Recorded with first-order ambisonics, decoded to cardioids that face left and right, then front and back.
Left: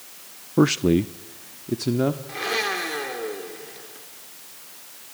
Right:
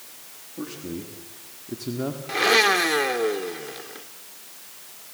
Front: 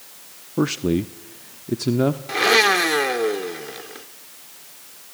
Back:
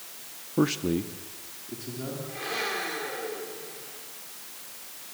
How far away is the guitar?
No guitar in this recording.